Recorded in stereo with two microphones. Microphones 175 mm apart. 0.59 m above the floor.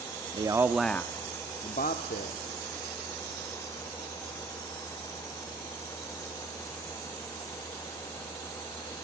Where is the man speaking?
25° right (ahead or behind), 0.8 m; by 2.5 s 65° left (ahead or behind), 1.3 m.